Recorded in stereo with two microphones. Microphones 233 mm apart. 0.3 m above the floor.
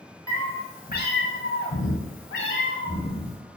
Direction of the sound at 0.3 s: 15° left (ahead or behind).